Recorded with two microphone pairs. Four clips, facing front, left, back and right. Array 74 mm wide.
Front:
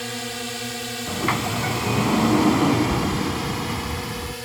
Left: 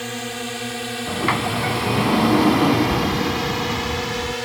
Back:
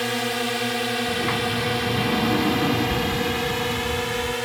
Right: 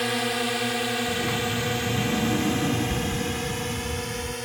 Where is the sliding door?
65° left.